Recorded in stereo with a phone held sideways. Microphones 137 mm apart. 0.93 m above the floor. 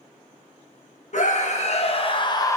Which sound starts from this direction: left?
A scream, at 1.1 s.